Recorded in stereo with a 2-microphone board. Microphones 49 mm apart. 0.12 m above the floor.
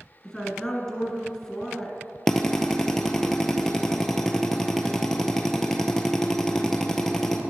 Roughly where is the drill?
Centre.